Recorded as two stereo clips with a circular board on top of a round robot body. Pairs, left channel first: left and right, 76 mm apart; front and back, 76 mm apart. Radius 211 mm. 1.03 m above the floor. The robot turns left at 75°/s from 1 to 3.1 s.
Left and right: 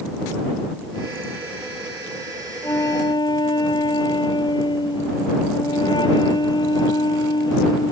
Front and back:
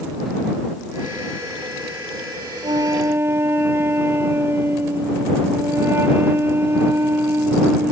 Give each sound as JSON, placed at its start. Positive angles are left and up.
{"t": 2.6, "sound": "a flute", "azimuth_deg": 155}